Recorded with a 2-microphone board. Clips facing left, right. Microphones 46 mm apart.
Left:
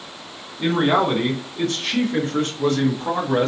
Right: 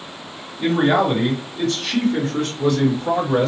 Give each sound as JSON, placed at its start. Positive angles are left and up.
{"t": 0.6, "sound": "a man speaking", "side_deg": 30, "distance_m": 2.5}